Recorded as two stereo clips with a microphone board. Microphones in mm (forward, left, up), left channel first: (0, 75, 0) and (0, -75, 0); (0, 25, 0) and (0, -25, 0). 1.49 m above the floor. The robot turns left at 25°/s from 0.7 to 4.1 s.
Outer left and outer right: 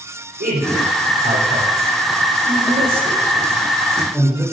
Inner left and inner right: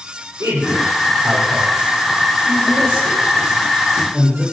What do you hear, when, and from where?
0.4 s a man speaking: 85° right, 7.5 m; by 4.4 s 5° right (ahead or behind), 7.5 m